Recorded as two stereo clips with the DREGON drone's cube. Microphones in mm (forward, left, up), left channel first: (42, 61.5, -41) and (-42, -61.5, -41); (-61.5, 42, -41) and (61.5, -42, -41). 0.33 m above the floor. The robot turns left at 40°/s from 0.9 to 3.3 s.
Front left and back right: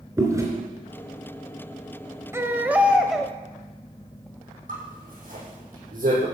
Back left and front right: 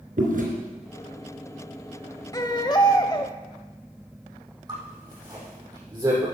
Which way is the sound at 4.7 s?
95° right.